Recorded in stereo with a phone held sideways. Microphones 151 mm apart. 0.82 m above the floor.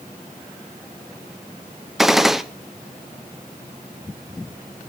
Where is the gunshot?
Centre (ahead or behind), 0.8 m.